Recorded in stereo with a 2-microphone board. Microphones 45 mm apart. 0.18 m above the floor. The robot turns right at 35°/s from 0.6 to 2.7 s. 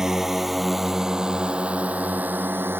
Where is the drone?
10° right (ahead or behind); by 2.8 s 50° right (ahead or behind).